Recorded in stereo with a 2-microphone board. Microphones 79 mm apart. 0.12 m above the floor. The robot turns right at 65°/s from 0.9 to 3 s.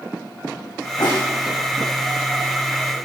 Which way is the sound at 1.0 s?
65° left (ahead or behind).